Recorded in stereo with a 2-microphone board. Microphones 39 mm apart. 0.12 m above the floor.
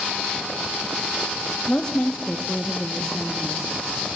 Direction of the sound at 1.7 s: 30° left (ahead or behind).